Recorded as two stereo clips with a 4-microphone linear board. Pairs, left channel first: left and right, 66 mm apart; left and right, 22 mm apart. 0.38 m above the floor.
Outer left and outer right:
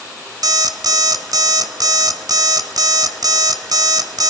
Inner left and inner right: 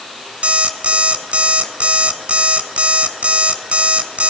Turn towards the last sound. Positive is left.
turn(degrees=-75)  # may be behind; listen again after turning